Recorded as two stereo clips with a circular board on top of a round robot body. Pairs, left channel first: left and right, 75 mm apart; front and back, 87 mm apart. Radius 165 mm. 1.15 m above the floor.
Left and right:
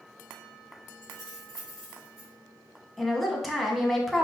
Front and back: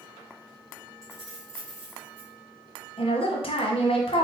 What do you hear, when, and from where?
1.0 s keys jangling: 130° right, 2.0 m; by 2.3 s 155° right, 2 m
3.0 s a woman speaking: 5° right, 1.0 m